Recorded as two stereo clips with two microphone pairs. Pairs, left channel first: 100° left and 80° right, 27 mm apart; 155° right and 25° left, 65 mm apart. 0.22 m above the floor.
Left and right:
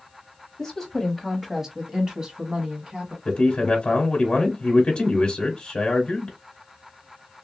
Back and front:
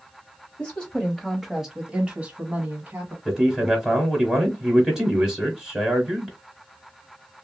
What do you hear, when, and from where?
0.6 s a woman speaking: 160° left, 1.0 m; by 3.1 s 35° right, 1.8 m
3.2 s a man speaking: 105° left, 1.0 m